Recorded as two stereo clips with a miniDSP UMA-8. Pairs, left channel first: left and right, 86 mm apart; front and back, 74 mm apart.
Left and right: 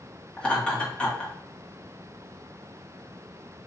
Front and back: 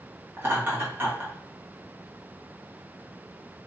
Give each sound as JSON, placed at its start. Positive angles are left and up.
{"t": 0.4, "sound": "laughter", "azimuth_deg": 160, "distance_m": 1.3}